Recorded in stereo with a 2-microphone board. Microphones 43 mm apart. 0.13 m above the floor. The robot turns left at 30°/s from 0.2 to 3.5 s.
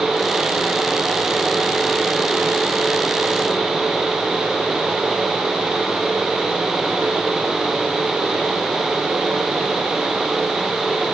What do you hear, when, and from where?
Only background noise.